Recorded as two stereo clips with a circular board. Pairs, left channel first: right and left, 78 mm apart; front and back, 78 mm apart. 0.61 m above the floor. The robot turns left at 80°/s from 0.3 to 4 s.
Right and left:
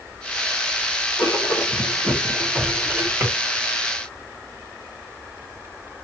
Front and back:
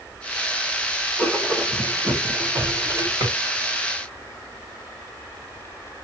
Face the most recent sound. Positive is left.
turn(degrees=85)